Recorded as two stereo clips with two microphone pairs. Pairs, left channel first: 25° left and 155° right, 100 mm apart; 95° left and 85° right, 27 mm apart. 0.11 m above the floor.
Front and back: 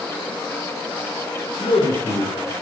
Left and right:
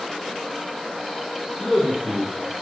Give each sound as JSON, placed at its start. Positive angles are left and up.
{"t": 1.6, "sound": "a man speaking", "azimuth_deg": 0, "distance_m": 5.5}